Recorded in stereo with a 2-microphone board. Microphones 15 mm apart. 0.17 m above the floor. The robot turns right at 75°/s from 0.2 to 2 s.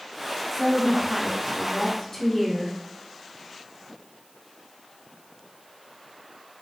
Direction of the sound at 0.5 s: 5° right (ahead or behind).